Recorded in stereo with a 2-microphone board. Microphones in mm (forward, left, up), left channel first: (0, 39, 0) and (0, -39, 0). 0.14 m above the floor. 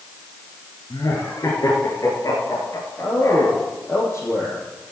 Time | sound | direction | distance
0.9 | laughter | 50° left (ahead or behind) | 2.5 m
3.0 | a man speaking | 35° left (ahead or behind) | 3.5 m